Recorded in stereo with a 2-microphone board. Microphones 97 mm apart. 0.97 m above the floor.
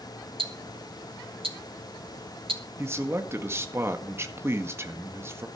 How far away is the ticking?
About 1.9 m.